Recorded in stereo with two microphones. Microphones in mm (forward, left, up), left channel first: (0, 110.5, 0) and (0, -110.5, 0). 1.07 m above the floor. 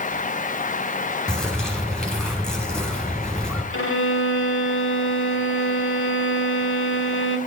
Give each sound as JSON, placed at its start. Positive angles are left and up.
{"t": 1.3, "sound": "a bird", "side_deg": 5, "distance_m": 6.0}
{"t": 3.7, "sound": "a violin", "side_deg": 65, "distance_m": 2.5}